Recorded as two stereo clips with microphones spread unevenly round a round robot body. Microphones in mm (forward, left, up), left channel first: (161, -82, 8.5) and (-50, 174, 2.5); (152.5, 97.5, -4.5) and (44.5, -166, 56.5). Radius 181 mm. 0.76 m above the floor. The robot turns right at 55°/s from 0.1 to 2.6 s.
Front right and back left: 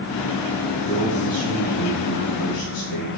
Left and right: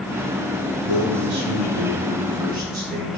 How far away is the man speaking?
About 3.5 m.